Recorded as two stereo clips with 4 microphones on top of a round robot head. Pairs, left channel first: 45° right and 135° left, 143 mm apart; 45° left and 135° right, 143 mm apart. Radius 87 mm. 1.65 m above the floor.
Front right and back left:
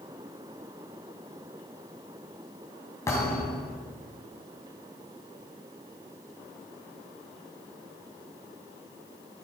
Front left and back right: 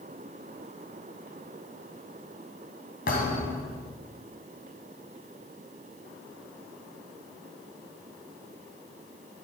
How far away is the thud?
About 3 m.